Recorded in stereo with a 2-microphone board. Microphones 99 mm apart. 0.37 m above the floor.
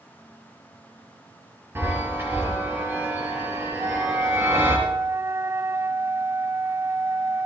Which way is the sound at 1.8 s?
25° right (ahead or behind).